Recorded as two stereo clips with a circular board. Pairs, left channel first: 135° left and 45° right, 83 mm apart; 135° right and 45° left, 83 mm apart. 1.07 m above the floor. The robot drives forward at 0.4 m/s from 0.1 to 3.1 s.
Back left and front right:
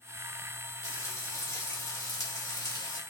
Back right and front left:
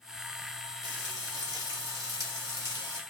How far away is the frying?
About 1.9 m.